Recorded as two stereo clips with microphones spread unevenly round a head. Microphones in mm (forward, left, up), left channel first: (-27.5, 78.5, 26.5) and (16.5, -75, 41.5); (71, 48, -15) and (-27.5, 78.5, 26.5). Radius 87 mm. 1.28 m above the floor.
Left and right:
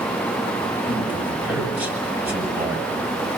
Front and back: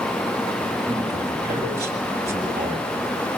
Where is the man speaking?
150° right, 8.5 m.